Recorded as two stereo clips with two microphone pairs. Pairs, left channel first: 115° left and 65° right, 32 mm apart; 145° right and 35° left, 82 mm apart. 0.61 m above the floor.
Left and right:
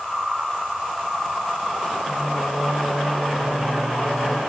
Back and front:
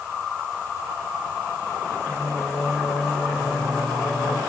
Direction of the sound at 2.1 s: 5° left.